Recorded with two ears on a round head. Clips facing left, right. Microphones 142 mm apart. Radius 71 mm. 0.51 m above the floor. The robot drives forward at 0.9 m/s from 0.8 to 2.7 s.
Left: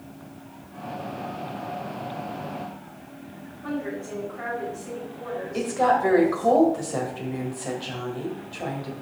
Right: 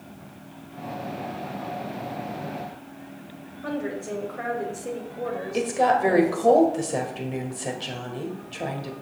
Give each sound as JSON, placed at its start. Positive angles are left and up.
{"t": 3.6, "sound": "a woman speaking", "side_deg": -65, "distance_m": 2.5}
{"t": 5.5, "sound": "a woman speaking", "side_deg": -30, "distance_m": 1.8}